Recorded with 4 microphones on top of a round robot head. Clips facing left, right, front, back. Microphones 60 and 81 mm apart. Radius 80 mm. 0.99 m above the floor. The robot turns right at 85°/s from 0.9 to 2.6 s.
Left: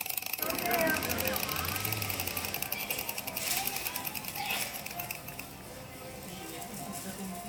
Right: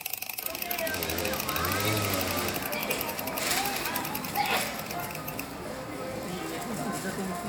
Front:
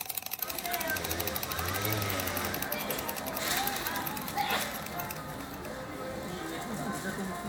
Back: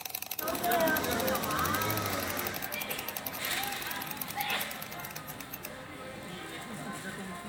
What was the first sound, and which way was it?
A sneeze, 150° left.